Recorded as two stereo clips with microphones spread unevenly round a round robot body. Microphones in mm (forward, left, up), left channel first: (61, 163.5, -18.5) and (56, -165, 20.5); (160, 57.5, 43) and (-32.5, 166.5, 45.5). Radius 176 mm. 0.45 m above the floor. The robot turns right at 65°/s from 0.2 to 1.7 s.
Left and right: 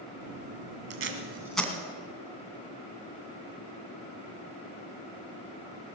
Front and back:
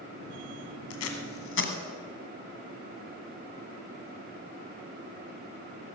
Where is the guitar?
No guitar in this recording.